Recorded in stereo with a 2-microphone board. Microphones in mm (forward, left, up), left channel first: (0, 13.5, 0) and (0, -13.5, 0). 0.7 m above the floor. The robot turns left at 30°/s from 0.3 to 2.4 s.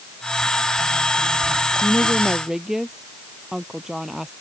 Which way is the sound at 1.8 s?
5° left (ahead or behind).